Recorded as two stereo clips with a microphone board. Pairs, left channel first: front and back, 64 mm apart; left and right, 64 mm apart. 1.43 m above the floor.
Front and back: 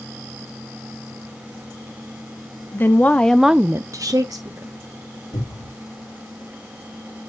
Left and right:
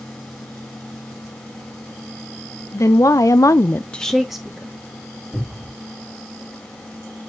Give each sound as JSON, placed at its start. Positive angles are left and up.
{"t": 2.7, "sound": "a woman speaking", "azimuth_deg": 55, "distance_m": 1.2}
{"t": 5.3, "sound": "a cupboard door", "azimuth_deg": -15, "distance_m": 4.0}